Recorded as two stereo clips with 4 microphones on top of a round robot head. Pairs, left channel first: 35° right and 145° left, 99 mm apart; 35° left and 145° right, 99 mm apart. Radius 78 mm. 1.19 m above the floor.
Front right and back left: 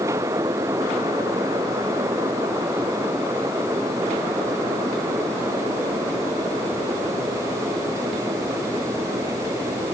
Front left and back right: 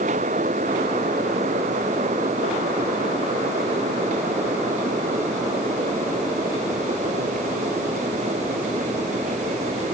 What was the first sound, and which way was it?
Only background noise.